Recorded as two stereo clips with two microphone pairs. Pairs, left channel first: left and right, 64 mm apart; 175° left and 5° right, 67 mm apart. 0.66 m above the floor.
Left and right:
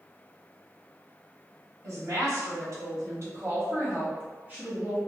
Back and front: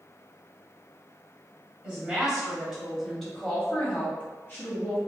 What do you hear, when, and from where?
1.8 s a woman speaking: 65° right, 1.7 m; by 5.0 s 155° right, 1.3 m